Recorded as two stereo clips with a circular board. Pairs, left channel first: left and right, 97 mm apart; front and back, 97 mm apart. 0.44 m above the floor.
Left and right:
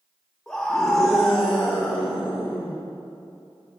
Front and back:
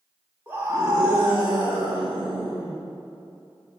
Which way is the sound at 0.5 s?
165° left.